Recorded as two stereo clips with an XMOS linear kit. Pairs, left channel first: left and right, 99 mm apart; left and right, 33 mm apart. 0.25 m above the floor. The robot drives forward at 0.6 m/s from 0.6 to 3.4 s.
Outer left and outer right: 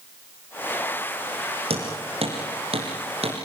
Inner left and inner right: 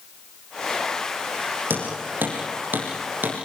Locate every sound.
1.7 s hammering: 85° right, 7 m; by 3.4 s 80° right, 7 m